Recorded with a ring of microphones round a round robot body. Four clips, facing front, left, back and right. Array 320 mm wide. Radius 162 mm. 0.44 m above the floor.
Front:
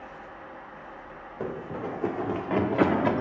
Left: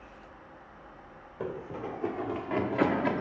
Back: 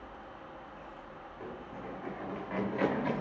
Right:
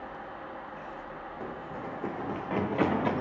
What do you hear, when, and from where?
1.4 s running footsteps: 20° left, 1.1 m; by 3.2 s 15° right, 2.0 m